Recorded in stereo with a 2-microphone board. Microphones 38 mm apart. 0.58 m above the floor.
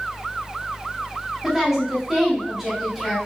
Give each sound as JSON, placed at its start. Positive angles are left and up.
{"t": 1.4, "sound": "a woman speaking", "side_deg": -5, "distance_m": 1.2}